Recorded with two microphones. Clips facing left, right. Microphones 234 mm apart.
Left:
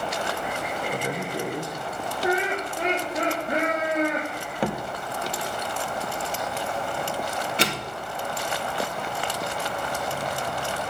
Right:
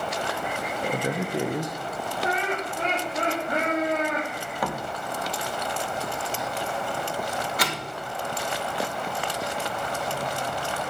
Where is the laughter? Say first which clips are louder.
Left 4 dB; 20° left (ahead or behind), 2.5 m.